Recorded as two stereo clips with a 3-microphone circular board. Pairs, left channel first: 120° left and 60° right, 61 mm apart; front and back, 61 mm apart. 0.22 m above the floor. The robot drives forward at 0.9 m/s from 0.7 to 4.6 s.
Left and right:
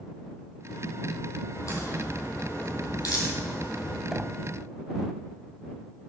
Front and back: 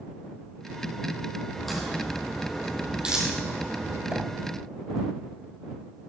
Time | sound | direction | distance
1.5 | a crack | 85° left | 4 m
4.1 | knocking | 135° right | 0.7 m